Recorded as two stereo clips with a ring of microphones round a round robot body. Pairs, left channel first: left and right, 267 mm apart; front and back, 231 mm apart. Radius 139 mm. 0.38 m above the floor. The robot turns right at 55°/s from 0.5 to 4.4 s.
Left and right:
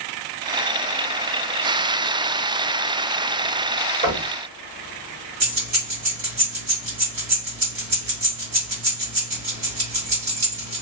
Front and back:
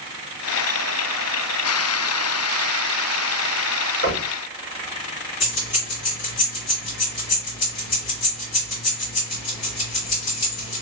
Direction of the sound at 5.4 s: 35° right.